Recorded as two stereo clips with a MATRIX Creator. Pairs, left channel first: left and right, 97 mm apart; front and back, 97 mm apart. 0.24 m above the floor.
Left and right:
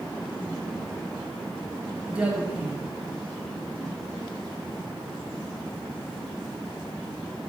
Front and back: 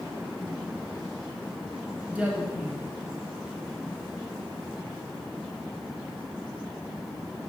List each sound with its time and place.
2.1 s a woman speaking: 140° right, 1.2 m